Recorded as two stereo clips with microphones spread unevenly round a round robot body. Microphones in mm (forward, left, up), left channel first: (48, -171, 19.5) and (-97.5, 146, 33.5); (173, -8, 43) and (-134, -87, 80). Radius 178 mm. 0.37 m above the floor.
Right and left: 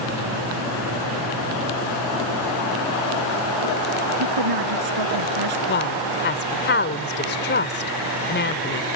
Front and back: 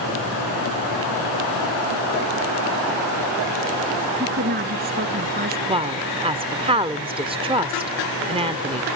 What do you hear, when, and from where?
4.2 s a woman speaking: 130° left
5.7 s a woman speaking: 95° right